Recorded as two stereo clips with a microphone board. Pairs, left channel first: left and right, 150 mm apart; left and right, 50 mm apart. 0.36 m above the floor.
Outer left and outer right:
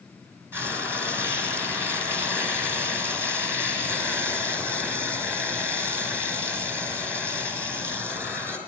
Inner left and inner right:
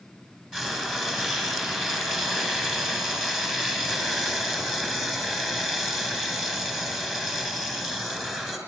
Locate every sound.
0.5 s frying: 15° right (ahead or behind), 5 m